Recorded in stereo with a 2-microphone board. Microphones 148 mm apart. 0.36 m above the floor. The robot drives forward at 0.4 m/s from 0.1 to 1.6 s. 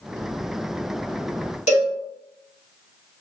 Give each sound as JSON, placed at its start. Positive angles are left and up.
{"t": 1.7, "sound": "a cowbell", "side_deg": 50, "distance_m": 0.8}